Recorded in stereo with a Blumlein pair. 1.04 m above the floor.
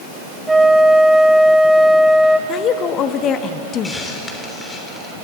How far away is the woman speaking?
About 1.2 m.